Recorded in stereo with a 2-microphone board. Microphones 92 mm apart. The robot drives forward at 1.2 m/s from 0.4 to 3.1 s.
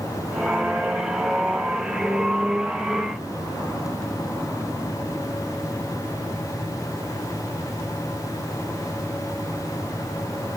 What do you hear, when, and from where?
Only background noise.